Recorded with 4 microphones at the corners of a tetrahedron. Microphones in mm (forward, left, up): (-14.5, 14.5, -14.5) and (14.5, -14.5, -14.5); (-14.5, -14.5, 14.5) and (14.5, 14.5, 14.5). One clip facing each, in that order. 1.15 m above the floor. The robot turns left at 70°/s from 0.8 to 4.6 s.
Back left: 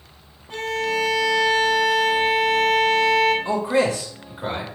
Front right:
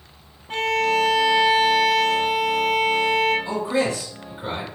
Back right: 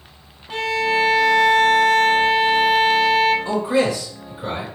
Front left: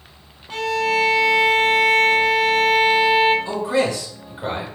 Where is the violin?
65° right, 0.7 m; by 3.4 s 115° left, 0.7 m.